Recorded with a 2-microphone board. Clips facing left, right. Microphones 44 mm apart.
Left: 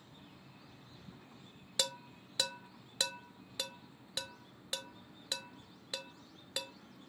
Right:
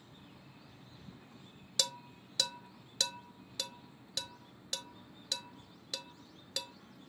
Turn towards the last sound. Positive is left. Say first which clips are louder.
# even
turn(degrees=20)  # may be behind; listen again after turning